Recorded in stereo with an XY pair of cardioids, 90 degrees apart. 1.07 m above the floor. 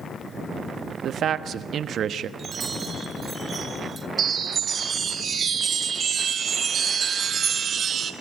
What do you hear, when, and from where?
1.0 s a man speaking: 70° right, 1.2 m
2.4 s a chime: 50° right, 2 m
4.2 s a chime: 55° right, 1.4 m